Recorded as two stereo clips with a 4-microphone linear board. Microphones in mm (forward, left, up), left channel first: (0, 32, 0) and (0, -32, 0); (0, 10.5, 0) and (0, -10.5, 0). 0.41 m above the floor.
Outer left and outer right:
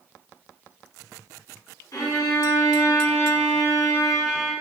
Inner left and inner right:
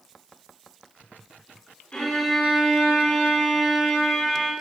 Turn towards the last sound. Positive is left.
turn(degrees=70)  # may be behind; listen again after turning